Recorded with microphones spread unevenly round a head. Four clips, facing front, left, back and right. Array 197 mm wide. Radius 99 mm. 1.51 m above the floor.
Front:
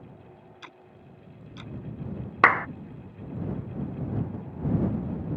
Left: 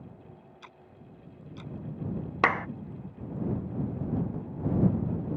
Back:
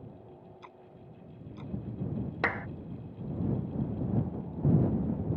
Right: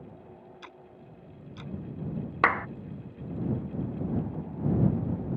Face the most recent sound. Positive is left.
turn(degrees=35)